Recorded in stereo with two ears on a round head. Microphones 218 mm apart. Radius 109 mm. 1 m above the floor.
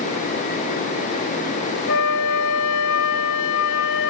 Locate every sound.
1.9 s a flute: 55° left (ahead or behind), 0.6 m